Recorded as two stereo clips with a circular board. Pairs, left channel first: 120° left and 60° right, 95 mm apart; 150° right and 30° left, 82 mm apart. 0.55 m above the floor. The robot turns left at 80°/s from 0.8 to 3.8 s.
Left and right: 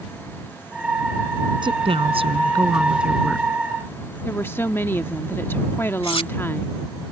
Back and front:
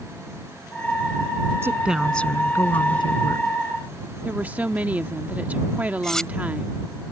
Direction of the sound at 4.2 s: 80° left.